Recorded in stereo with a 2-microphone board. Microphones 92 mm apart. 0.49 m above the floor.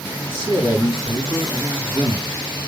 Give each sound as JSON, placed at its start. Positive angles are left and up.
{"t": 0.3, "sound": "a man speaking", "side_deg": 70, "distance_m": 4.0}